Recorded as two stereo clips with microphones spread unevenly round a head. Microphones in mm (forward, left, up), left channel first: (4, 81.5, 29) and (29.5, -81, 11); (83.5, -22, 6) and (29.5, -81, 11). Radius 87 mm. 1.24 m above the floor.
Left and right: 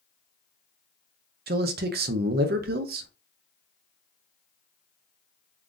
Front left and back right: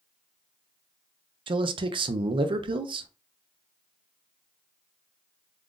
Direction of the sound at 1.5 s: 120° right.